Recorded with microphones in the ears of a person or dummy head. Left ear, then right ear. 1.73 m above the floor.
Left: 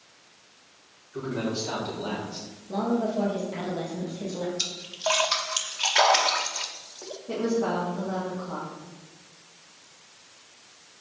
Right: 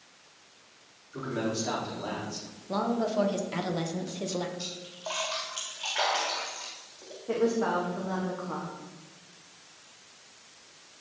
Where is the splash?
45° left (ahead or behind), 0.7 m.